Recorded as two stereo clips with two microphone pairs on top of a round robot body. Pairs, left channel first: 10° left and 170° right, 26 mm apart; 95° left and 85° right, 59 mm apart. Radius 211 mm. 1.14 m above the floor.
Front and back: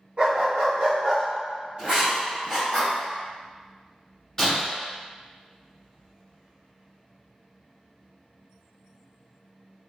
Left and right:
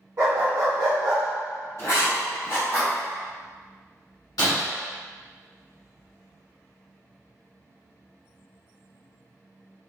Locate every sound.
0.2 s a dog barking: 140° right, 2.0 m; by 1.2 s 110° right, 1.5 m
1.8 s writing: 140° left, 1.6 m
4.4 s breaking glass: 90° left, 1.8 m